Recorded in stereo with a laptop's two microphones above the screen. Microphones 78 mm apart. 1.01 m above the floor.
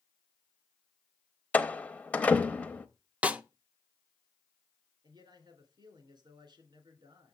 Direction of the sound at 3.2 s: 15° right (ahead or behind).